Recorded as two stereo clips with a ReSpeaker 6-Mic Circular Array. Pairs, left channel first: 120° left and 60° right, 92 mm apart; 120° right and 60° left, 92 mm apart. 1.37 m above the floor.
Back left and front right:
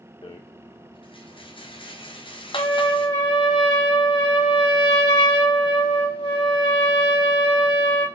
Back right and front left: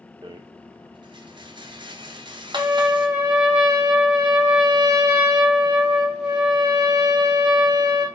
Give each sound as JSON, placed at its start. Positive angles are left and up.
{"t": 0.2, "sound": "a rattle", "azimuth_deg": 95, "distance_m": 0.7}
{"t": 2.5, "sound": "a trumpet", "azimuth_deg": 135, "distance_m": 2.5}